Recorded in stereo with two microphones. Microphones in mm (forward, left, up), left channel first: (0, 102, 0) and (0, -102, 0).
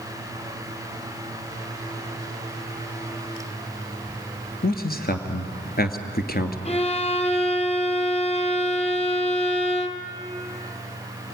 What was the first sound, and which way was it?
A man speaking, 50° left (ahead or behind).